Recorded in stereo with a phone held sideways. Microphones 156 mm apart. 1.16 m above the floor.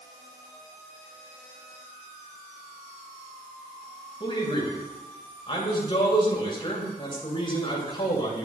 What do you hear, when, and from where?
4.2 s a man speaking: 35° left (ahead or behind), 6.5 m